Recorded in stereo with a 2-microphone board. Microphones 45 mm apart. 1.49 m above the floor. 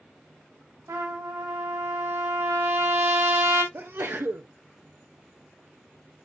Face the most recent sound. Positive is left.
turn(degrees=-55)  # may be behind; listen again after turning